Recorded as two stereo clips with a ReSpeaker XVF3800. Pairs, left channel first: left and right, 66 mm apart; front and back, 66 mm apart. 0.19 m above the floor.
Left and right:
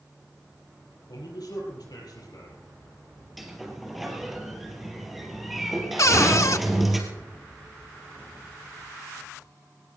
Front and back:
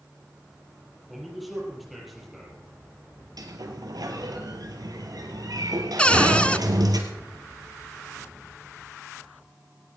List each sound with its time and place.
1.1 s a man speaking: 90° left, 6.5 m
3.4 s a sliding door: straight behind, 2.5 m
6.0 s a cupboard door: 70° left, 0.5 m